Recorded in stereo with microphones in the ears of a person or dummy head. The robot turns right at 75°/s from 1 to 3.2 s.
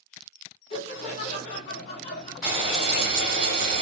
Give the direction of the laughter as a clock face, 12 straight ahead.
10 o'clock.